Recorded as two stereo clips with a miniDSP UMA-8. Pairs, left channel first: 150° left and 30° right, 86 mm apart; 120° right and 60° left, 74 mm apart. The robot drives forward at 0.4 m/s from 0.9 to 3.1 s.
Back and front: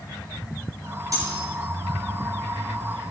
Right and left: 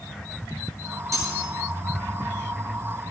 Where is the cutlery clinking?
20° left, 4 m.